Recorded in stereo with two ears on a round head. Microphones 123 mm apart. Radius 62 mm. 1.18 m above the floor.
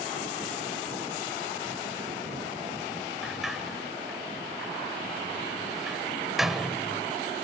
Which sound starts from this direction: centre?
A sliding door, at 3.2 s.